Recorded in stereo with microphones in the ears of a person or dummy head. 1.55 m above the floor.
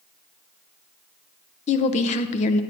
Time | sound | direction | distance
1.7 | a woman speaking | 45° left (ahead or behind) | 0.7 m